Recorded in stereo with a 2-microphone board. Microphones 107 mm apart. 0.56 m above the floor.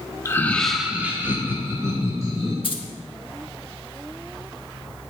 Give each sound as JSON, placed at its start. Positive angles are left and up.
{"t": 0.2, "sound": "laughter", "side_deg": 25, "distance_m": 0.6}
{"t": 2.6, "sound": "keys jangling", "side_deg": 55, "distance_m": 0.9}